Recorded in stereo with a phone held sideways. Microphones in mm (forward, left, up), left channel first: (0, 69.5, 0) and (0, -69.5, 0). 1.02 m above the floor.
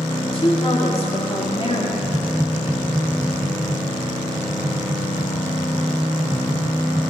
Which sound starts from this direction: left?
A woman speaking, at 0.2 s.